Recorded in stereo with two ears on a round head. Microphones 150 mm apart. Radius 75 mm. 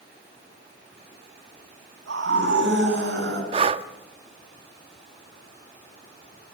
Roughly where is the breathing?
Right.